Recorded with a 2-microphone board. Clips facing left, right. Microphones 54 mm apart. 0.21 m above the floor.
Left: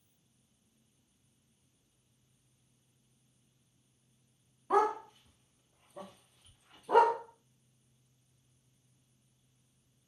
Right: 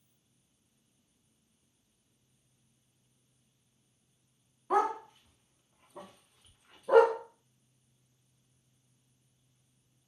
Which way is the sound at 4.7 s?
5° right (ahead or behind).